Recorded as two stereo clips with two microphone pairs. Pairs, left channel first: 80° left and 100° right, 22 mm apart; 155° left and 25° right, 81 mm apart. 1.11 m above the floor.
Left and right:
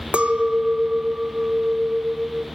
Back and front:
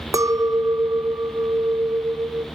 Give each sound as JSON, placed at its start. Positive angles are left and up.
{"t": 0.1, "sound": "a clink", "azimuth_deg": -75, "distance_m": 0.6}